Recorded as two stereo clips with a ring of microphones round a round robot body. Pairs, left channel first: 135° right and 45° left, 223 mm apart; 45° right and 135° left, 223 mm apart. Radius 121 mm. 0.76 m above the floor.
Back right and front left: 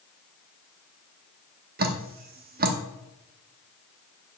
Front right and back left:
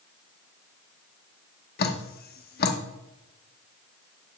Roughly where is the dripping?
Ahead.